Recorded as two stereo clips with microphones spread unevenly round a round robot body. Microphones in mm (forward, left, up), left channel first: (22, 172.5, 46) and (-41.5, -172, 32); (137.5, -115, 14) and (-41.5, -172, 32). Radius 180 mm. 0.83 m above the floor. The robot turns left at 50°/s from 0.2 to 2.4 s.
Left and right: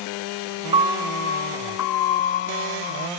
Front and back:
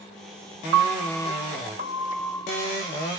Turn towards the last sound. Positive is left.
turn(degrees=100)